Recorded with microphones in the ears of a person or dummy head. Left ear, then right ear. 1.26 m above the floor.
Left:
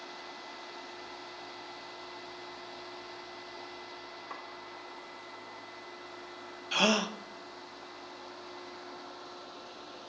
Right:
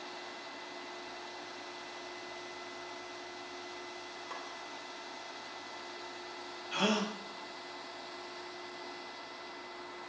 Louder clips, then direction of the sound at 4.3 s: Even; 5° right (ahead or behind).